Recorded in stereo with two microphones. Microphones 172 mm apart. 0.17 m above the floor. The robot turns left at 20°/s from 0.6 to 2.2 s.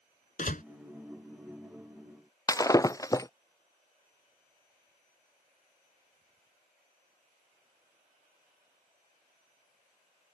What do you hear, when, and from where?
0.4 s a door slam: 55° left (ahead or behind)
2.5 s breaking glass: 20° left (ahead or behind)